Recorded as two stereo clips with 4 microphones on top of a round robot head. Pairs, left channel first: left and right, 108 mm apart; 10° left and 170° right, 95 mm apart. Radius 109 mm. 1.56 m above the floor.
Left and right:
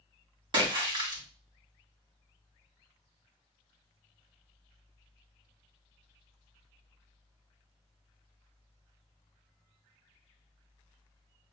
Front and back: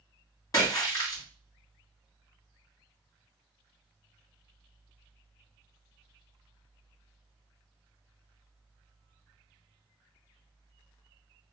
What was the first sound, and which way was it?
A splash, 50° right.